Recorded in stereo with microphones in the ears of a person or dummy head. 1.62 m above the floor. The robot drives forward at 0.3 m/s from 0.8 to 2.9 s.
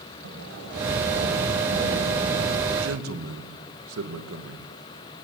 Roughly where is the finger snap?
I don't hear a finger snap.